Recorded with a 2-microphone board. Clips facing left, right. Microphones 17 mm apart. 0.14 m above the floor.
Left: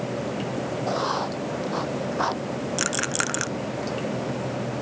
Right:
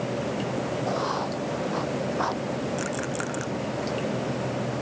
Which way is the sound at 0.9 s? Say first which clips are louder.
Left 4 dB; 20° left (ahead or behind).